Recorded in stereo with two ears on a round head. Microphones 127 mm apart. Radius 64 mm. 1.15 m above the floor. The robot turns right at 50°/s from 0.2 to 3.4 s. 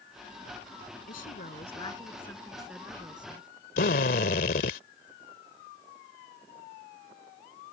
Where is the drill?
75° left (ahead or behind).